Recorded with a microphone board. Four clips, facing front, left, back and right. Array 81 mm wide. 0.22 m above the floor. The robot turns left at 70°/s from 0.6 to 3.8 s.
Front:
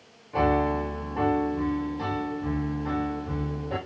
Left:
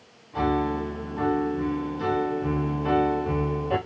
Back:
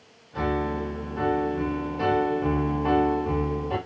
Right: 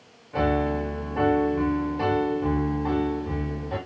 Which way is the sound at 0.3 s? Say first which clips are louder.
Right 1 dB, front 3 dB; 40° right.